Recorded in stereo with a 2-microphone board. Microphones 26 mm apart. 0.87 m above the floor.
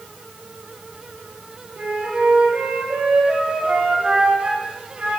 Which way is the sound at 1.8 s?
50° right (ahead or behind).